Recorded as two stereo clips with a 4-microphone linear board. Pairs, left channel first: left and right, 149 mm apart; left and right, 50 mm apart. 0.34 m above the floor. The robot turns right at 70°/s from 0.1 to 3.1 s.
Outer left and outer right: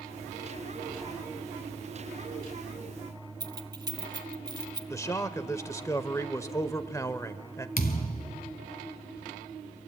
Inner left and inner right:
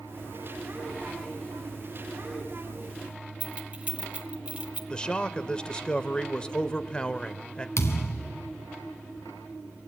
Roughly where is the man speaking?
Left.